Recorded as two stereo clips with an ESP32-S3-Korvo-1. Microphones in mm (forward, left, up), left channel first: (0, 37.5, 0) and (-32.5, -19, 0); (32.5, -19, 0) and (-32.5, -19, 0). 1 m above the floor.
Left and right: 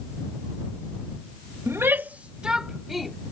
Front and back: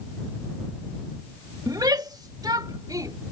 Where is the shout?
165° right; by 3.1 s 150° left.